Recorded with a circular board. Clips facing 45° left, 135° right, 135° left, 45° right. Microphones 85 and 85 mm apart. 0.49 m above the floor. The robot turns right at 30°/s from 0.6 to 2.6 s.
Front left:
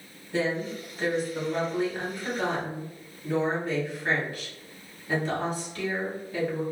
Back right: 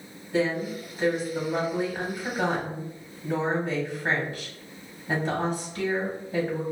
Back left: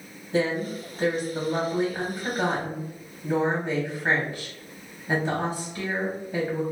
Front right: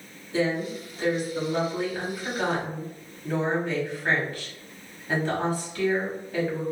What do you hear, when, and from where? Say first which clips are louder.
0.3 s a woman speaking: back right 2 dB, back left 1 dB; 125° left, 1.0 m; by 6.6 s 175° right, 1.0 m